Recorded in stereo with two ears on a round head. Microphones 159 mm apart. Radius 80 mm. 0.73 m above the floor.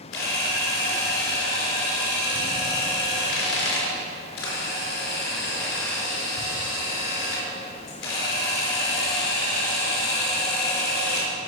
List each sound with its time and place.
0.1 s a camera shutter: 80° left, 4 m